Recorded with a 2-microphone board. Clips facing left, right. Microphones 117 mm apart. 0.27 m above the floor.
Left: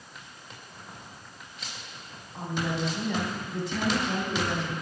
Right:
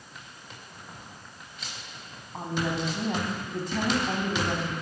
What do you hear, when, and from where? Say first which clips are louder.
2.3 s a woman speaking: right 1 dB; 50° right (ahead or behind), 1.9 m